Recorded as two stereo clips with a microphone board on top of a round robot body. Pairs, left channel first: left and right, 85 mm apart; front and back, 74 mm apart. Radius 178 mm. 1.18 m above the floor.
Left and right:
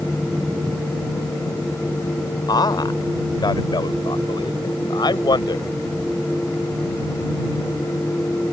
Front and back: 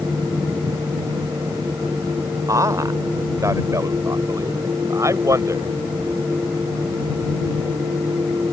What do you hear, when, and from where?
2.5 s a man speaking: 135° left; by 5.7 s 130° left